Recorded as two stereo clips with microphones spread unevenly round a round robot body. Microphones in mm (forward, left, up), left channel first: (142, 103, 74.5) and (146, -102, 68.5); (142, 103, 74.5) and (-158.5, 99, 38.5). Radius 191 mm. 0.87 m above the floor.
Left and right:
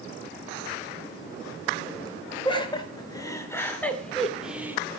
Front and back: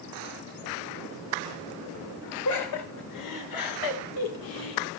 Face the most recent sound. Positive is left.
turn(degrees=-10)